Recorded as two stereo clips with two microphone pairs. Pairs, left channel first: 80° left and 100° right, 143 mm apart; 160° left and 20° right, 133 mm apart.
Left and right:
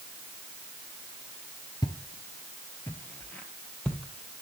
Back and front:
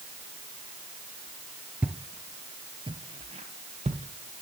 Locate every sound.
1.8 s footsteps: 50° left, 1.0 m; by 4.4 s 5° right, 1.9 m